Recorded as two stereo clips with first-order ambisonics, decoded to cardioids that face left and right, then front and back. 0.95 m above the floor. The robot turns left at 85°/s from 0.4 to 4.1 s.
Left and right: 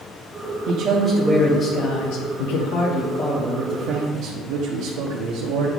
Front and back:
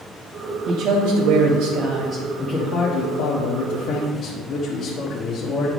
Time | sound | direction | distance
0.7 | a man speaking | 130° right | 1.1 m